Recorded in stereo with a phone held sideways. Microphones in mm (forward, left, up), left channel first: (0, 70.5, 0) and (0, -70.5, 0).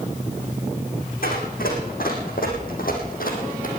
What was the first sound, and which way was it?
Running footsteps, 75° left (ahead or behind).